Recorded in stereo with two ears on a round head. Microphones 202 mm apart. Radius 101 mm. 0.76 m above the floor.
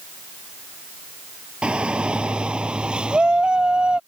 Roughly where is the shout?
Centre.